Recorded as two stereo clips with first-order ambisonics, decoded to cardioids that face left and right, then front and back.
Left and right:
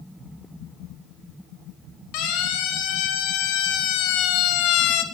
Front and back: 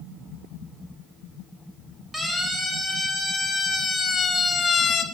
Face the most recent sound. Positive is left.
turn(degrees=60)